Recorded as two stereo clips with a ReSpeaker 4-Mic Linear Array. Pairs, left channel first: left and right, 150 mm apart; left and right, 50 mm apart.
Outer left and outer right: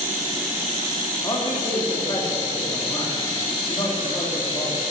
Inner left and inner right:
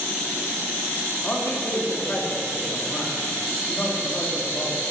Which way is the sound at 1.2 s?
30° left (ahead or behind).